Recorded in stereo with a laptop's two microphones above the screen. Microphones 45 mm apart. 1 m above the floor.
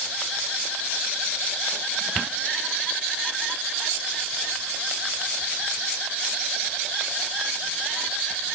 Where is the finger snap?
I don't hear a finger snap.